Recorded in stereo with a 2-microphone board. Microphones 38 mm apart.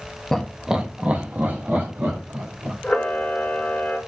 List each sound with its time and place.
0.3 s laughter: 10° left (ahead or behind), 0.5 m; by 2.7 s 55° right (ahead or behind), 1.5 m
2.8 s a camera shutter: 35° left (ahead or behind), 0.8 m